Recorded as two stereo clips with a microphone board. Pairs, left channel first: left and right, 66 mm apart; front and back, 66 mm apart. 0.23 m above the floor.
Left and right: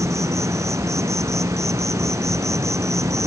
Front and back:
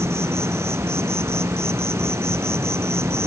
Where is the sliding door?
I don't hear a sliding door.